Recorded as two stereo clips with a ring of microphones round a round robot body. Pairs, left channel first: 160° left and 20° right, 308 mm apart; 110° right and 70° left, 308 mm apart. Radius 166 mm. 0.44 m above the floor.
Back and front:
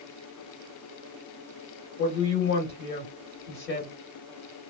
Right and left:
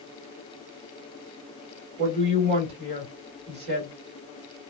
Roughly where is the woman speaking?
Behind left.